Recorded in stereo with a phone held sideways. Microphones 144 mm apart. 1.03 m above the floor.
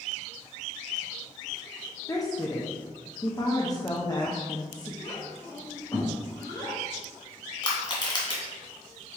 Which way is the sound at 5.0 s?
25° left (ahead or behind).